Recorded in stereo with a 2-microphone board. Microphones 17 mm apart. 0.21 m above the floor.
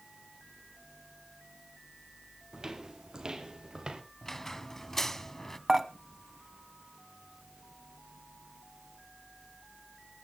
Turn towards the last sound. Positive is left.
turn(degrees=-20)  # may be behind; listen again after turning